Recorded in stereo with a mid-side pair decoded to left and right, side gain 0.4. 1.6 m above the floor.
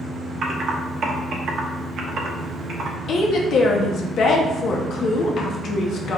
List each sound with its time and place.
0.4 s typing on a keyboard: 60° right, 1.1 m
3.1 s a woman speaking: 70° left, 1.0 m